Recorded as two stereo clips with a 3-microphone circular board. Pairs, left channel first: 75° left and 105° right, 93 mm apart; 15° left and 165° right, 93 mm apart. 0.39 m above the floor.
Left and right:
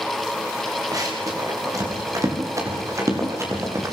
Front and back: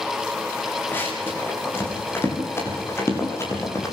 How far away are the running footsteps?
About 9 m.